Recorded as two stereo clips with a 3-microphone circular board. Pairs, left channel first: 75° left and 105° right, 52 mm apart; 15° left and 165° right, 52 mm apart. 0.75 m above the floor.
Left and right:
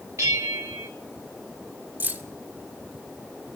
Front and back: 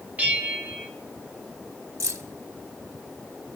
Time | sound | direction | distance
0.2 | a bell | 110° right | 1.5 m
2.0 | keys jangling | 155° right | 1.2 m